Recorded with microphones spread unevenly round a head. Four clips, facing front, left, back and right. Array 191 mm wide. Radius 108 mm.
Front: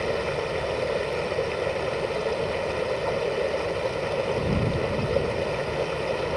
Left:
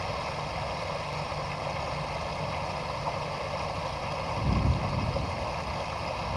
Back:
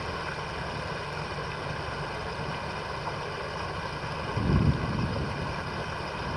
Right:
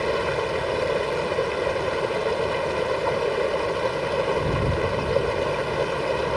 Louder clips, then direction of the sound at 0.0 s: Right 10 dB, front 8 dB; 80° right.